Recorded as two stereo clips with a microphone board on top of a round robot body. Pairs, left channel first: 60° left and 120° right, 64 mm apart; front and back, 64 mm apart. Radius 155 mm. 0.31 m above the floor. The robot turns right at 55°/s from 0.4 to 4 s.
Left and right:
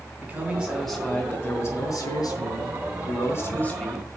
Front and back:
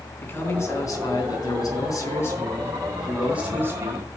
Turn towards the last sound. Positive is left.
turn(degrees=145)